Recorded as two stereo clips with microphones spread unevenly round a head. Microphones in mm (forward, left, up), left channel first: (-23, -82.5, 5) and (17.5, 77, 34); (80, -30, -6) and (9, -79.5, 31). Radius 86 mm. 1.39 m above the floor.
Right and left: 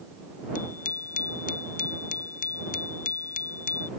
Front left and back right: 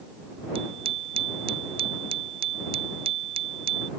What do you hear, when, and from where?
0.6 s a bicycle bell: 150° right